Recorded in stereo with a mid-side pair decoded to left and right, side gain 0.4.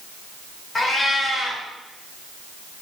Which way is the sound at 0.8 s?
40° left.